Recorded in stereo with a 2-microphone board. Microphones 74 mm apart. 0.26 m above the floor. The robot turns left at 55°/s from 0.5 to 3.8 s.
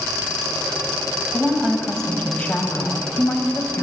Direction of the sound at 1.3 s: 155° right.